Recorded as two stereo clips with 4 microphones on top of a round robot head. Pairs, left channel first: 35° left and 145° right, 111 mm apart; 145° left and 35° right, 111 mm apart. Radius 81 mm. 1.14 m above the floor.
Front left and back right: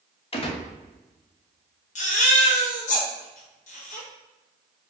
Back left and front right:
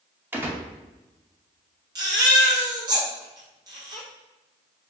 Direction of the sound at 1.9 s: 20° left.